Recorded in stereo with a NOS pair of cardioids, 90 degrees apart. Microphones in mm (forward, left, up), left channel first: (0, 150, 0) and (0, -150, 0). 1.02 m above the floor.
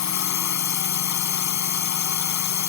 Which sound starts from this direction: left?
A drone, at 0.0 s.